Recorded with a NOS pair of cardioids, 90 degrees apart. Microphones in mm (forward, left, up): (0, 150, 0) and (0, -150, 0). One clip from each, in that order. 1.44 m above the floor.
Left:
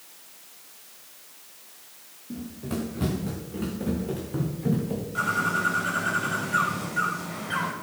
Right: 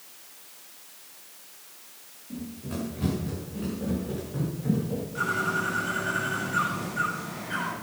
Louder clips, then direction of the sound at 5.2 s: Left 2 dB; 45° left.